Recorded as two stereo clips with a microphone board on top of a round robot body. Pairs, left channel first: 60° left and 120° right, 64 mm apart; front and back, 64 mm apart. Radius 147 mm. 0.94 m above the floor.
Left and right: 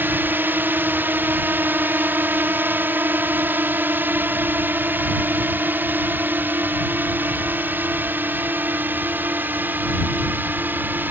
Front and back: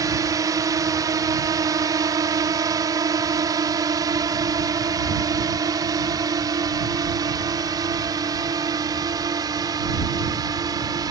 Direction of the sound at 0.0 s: 175° right.